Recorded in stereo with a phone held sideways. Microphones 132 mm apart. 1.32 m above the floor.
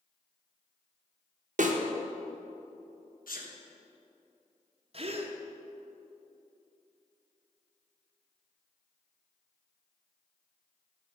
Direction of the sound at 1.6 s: 60° right (ahead or behind).